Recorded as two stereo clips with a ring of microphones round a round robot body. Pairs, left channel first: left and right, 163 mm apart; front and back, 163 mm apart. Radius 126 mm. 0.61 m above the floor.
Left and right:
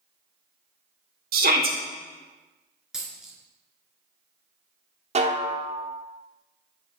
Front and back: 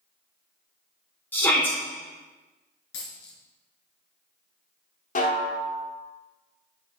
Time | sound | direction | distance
1.3 | a shout | 80° right | 1.9 m
2.9 | a dropped coin | 5° right | 2.5 m
5.2 | a snare drum | 40° right | 1.2 m